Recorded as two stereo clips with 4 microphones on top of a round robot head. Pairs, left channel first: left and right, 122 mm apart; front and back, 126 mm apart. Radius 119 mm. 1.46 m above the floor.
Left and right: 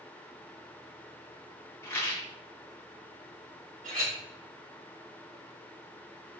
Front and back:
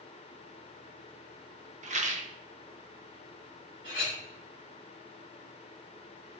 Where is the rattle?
160° left, 1.1 m.